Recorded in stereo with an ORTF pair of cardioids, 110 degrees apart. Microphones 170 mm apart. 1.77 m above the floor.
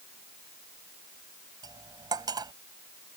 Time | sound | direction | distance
1.6 | cutlery clinking | 25° right | ?